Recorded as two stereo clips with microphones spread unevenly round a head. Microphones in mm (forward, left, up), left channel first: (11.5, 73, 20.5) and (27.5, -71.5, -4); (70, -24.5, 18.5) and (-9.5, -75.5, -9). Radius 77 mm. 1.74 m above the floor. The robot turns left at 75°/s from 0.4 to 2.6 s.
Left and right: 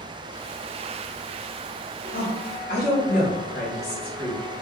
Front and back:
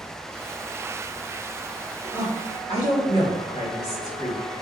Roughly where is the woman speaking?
Behind left.